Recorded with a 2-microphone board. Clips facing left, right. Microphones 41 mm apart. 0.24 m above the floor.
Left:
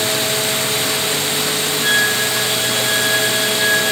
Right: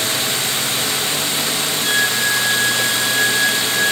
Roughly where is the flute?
Left.